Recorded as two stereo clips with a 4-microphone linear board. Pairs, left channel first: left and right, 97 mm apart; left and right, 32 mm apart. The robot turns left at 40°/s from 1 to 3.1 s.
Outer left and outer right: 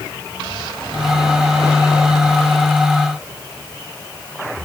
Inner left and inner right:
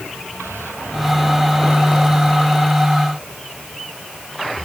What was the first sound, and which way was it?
Only background noise.